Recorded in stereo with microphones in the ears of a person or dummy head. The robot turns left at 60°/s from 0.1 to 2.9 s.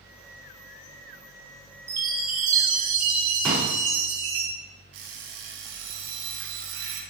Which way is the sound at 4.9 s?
65° right (ahead or behind).